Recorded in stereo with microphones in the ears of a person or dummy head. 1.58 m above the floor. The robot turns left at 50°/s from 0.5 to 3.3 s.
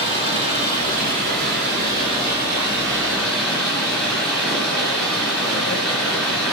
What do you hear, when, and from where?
0.0 s running water: 45° right, 2 m; by 6.5 s 175° left, 2 m